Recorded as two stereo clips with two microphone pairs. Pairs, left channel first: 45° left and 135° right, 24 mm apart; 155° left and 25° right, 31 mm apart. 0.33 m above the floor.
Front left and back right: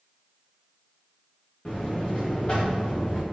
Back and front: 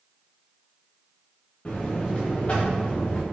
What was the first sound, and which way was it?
A buzzer, 100° left.